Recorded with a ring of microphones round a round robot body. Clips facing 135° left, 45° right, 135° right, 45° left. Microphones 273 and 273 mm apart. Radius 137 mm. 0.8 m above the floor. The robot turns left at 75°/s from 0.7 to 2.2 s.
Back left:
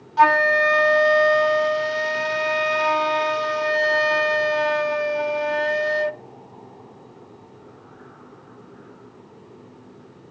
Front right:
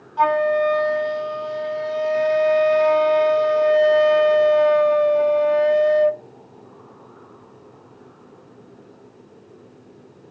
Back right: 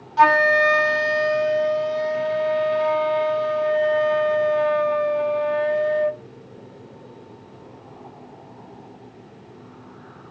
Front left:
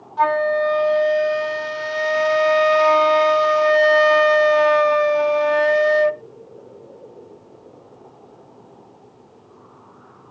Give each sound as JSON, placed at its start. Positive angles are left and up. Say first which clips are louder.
{"t": 0.2, "sound": "a flute", "louder": "front right 2 dB, even", "azimuth_deg": -175}